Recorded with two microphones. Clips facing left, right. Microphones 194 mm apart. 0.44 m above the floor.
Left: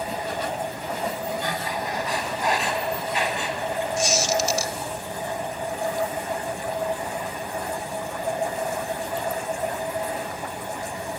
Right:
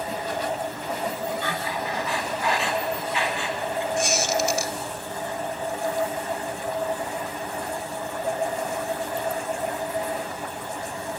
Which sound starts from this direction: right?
A squeak, at 4.0 s.